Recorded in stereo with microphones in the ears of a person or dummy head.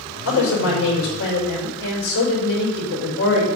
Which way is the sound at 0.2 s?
80° left.